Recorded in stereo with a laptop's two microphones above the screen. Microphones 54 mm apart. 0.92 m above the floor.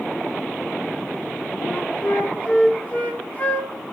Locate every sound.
1.6 s a flute: 30° left (ahead or behind), 1.4 m